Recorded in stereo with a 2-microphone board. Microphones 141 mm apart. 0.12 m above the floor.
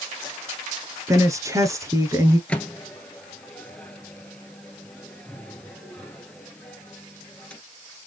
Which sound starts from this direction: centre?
A microwave, at 2.5 s.